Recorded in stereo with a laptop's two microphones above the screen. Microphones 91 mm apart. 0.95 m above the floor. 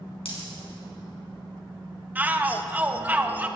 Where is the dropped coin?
85° left, 4.5 m.